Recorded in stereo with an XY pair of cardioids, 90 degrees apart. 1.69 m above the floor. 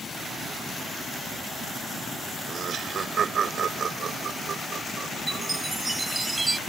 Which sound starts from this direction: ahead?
A chime, at 5.3 s.